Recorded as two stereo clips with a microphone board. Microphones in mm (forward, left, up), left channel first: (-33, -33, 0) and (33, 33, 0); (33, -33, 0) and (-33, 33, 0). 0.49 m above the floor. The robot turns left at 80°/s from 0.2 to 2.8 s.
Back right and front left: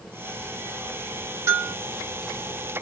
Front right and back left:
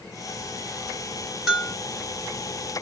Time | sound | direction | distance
1.5 | a bell | 55° left | 1.4 m